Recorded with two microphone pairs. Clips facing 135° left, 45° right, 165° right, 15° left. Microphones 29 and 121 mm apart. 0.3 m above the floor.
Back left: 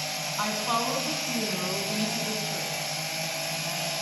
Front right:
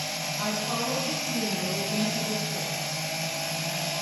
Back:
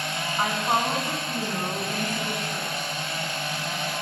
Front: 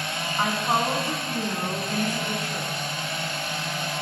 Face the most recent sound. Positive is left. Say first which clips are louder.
# back left 3 dB, front 1 dB
turn(degrees=110)